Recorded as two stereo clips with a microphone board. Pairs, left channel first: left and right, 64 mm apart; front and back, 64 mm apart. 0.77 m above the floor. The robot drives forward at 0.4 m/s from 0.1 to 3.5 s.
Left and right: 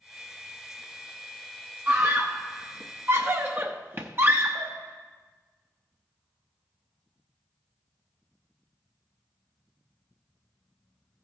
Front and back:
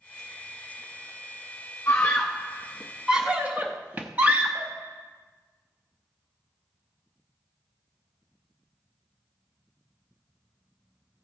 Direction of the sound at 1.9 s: 45° right.